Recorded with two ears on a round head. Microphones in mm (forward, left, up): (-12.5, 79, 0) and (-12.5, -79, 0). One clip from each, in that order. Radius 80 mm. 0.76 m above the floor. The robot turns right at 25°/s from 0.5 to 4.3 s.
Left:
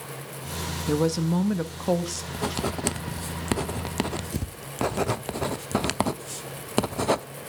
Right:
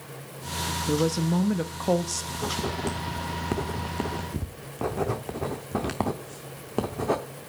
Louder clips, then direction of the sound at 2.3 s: Left 2 dB; 55° left (ahead or behind).